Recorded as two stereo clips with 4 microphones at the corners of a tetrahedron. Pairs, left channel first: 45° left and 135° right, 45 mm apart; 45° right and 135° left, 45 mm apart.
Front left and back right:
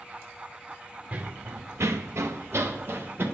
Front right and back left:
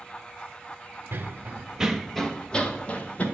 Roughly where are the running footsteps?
Behind.